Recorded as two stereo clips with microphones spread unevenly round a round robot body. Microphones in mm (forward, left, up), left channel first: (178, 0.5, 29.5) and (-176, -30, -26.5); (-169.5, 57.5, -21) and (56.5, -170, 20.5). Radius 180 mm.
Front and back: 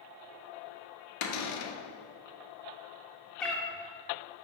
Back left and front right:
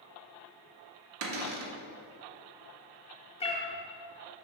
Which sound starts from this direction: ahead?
A cupboard door, at 1.2 s.